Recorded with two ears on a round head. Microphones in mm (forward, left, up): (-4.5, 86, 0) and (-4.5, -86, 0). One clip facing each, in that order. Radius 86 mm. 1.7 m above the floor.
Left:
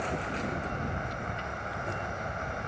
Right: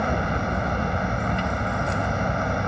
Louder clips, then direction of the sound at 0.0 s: Right 8 dB; 80° right.